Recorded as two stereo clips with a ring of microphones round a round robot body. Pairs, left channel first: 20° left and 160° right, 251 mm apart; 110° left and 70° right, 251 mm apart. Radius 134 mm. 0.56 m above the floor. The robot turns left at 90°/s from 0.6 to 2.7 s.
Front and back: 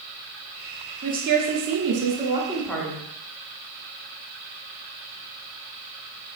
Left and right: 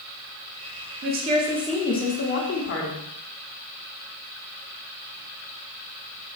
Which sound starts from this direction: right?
A woman speaking, at 1.0 s.